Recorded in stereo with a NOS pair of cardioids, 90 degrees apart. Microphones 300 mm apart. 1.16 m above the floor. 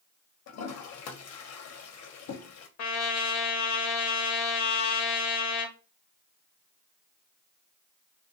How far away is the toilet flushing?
About 0.6 m.